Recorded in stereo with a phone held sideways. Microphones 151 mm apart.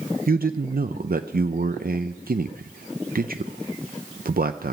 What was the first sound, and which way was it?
A man speaking, 80° right.